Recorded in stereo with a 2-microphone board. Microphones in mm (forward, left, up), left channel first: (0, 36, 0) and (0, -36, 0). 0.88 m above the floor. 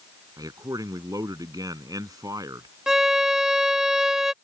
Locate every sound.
0.4 s a man speaking: 60° right (ahead or behind)
2.9 s a violin: 5° right (ahead or behind)